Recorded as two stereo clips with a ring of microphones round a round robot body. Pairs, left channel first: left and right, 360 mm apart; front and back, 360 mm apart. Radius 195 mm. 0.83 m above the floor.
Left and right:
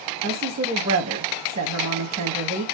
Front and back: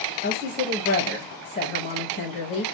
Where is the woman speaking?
50° right, 0.8 m.